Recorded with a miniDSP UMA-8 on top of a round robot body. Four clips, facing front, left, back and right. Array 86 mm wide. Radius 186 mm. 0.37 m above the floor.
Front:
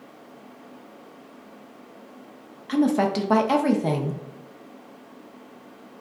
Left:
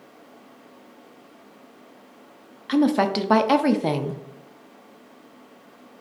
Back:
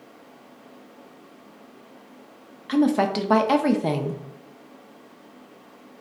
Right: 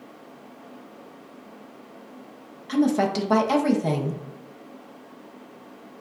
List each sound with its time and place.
2.7 s a woman speaking: 105° left, 0.9 m